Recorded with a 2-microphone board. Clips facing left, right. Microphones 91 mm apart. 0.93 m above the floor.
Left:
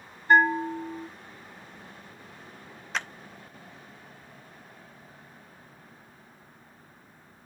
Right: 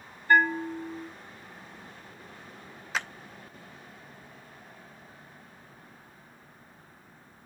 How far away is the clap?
About 0.7 m.